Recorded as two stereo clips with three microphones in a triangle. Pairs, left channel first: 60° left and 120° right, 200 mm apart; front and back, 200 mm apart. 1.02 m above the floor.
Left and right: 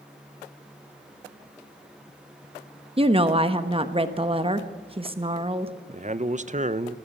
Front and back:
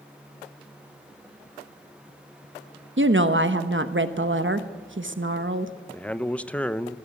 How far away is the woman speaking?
About 1.0 m.